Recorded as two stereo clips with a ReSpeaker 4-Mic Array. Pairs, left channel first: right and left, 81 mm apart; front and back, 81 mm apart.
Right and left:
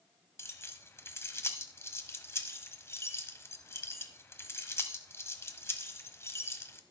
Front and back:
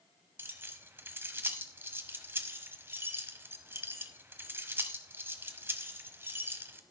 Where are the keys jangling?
130° right, 1.0 m.